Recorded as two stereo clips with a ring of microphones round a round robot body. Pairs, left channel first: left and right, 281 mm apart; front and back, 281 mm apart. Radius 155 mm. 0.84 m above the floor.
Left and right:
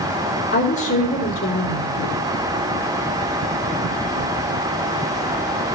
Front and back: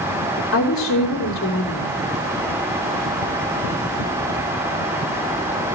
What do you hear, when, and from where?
0.5 s a woman speaking: 40° left, 2.5 m